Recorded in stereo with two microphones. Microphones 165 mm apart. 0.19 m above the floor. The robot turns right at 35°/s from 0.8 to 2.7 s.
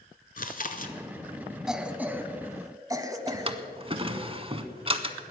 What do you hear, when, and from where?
0.4 s chewing: 55° left (ahead or behind), 0.9 m
1.7 s a cough: 5° right (ahead or behind), 1.1 m; by 3.6 s 20° right (ahead or behind), 1.1 m
3.3 s a drawer: 35° right (ahead or behind), 0.7 m